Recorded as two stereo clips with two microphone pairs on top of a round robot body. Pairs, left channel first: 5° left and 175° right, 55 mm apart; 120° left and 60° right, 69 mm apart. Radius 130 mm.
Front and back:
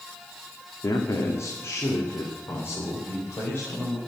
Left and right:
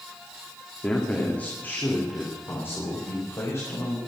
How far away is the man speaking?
About 2.5 m.